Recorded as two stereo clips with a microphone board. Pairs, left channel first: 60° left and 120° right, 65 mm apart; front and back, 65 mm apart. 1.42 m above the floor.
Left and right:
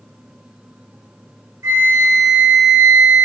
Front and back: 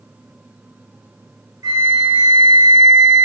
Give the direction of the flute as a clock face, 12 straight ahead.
5 o'clock.